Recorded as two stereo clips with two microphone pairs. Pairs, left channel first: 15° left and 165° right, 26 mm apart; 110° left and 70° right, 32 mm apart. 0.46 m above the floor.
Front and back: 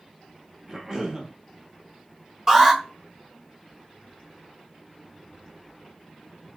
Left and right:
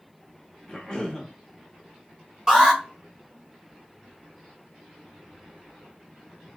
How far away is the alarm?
About 1.8 m.